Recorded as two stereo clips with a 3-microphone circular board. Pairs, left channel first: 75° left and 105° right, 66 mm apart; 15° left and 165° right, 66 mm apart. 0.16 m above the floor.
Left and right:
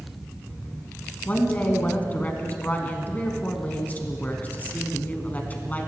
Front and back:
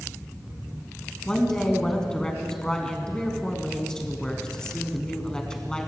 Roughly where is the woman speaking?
Left.